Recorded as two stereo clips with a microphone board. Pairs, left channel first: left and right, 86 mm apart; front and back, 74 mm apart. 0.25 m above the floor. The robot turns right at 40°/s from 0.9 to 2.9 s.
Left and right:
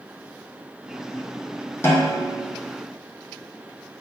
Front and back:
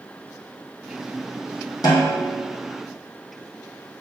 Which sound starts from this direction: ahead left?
A snare drum, at 1.8 s.